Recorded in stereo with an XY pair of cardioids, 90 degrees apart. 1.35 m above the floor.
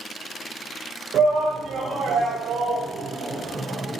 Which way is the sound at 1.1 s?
70° right.